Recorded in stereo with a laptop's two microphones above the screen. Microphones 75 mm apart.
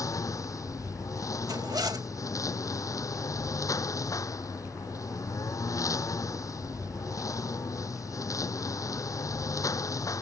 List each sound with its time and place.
0.0 s a lawn mower: 45° left (ahead or behind)
1.5 s a zipper: 60° right (ahead or behind)